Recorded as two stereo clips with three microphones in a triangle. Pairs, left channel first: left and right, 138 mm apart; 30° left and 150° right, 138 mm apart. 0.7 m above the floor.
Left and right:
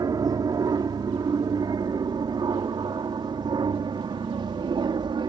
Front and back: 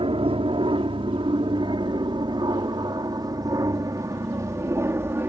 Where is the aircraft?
135° right; by 5.3 s 90° right.